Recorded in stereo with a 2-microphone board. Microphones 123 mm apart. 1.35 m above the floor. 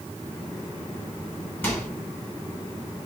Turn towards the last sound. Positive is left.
turn(degrees=15)  # may be behind; listen again after turning